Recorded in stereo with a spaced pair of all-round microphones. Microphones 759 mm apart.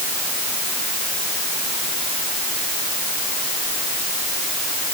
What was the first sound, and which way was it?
Only background noise.